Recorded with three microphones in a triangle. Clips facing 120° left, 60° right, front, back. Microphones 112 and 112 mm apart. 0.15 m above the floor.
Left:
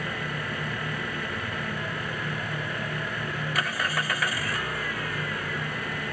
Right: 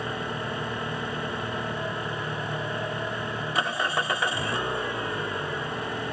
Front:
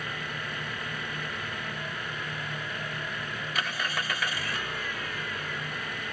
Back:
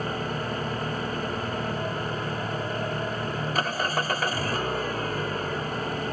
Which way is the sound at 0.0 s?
125° right.